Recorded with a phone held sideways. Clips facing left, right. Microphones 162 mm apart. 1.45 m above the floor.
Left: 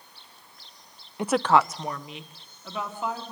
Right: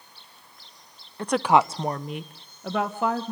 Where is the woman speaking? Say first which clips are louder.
Right 1 dB; 15° left (ahead or behind), 0.5 m; by 3.3 s 65° right (ahead or behind), 2 m.